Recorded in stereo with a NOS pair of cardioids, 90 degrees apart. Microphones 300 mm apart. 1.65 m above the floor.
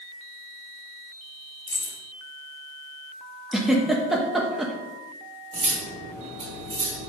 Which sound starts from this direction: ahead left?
Keys jangling, at 1.7 s.